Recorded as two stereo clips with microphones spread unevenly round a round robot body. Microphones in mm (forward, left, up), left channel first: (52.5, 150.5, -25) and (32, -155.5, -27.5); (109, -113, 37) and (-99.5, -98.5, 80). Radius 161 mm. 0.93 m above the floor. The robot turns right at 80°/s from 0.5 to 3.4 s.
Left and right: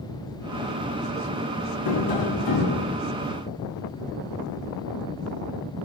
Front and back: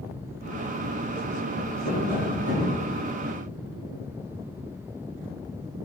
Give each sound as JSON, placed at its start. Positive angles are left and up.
{"t": 1.9, "sound": "tapping", "azimuth_deg": 55, "distance_m": 4.5}